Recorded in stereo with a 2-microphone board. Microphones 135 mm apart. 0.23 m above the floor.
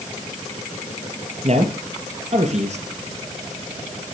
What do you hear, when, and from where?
1.4 s a man speaking: 55° right (ahead or behind), 4.5 m